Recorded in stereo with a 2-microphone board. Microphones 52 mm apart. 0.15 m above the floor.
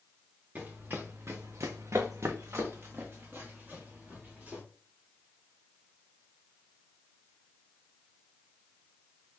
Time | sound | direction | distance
0.6 | running footsteps | 35° right (ahead or behind) | 0.9 m